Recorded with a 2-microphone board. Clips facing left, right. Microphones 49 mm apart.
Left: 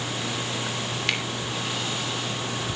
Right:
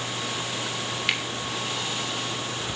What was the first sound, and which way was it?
A finger snap, 5° right (ahead or behind).